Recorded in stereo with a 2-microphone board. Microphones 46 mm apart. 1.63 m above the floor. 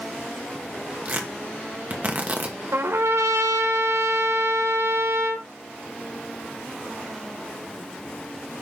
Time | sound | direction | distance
1.1 | tearing paper | 35° right (ahead or behind) | 1.4 m
2.7 | a trumpet | 70° right (ahead or behind) | 1.2 m